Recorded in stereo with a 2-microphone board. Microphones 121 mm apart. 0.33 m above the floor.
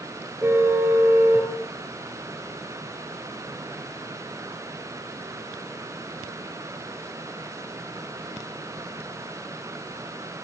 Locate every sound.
0.4 s a car horn: 20° right (ahead or behind), 3 m